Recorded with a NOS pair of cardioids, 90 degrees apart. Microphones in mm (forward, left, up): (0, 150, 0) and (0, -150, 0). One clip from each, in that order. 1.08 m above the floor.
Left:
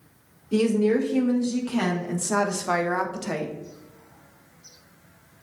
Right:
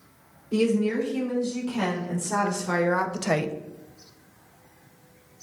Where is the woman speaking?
50° left, 2 m; by 3.5 s 50° right, 0.6 m.